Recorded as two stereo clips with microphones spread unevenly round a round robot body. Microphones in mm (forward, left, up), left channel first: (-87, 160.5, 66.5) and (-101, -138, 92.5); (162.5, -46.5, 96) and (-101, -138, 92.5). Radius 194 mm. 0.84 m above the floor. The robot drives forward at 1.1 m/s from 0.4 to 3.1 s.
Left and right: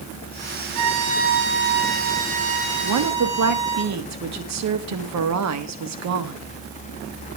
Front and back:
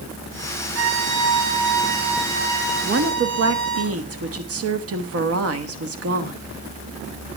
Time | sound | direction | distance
0.8 | a violin | 125° right | 1.2 m
2.8 | a woman speaking | 115° right | 1.3 m